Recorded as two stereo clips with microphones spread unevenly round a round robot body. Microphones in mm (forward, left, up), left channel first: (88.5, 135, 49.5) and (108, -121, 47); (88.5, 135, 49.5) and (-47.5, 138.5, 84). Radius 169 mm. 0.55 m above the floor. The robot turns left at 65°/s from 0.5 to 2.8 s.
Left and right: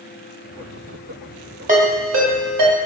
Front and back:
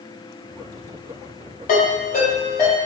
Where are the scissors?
No scissors in this recording.